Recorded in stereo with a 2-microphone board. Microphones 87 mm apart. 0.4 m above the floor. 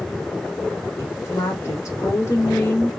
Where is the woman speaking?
35° left (ahead or behind), 0.9 m.